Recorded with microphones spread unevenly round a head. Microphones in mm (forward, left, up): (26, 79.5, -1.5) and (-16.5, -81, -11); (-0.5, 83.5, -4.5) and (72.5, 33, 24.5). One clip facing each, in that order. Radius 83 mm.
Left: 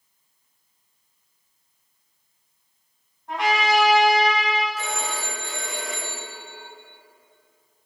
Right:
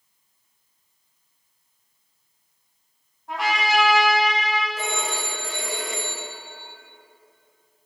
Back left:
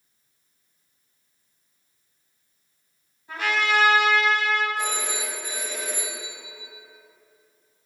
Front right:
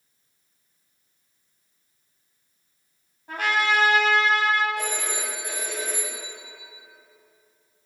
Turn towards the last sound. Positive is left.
turn(degrees=-65)